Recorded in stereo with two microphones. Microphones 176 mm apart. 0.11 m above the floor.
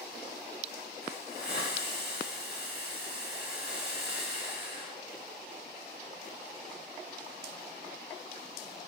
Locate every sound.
1.0 s a hiss: 65° left (ahead or behind), 6.5 m